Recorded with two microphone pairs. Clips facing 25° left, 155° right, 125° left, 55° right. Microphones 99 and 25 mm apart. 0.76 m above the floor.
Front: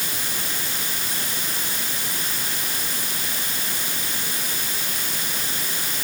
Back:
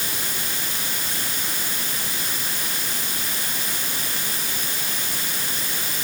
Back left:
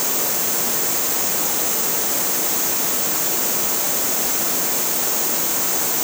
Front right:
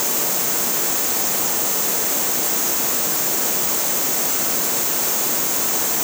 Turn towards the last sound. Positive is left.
No sound to turn to.